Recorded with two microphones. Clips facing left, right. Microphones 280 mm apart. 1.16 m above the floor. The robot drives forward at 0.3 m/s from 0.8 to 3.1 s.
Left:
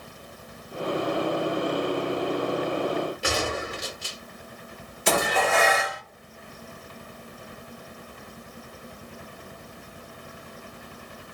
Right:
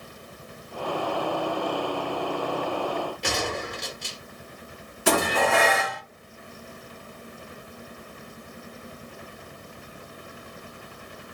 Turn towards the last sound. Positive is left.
turn(degrees=-65)  # may be behind; listen again after turning